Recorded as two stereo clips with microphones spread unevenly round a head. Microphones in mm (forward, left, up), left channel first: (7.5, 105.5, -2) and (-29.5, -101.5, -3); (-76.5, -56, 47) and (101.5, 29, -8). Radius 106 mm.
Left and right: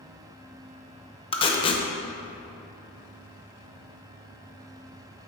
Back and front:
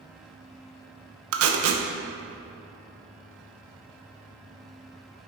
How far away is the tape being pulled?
About 0.8 m.